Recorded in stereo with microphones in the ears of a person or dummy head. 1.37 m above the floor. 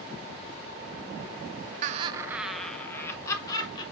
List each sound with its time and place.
1.8 s laughter: 45° right (ahead or behind), 0.6 m; by 3.8 s 20° left (ahead or behind), 1.9 m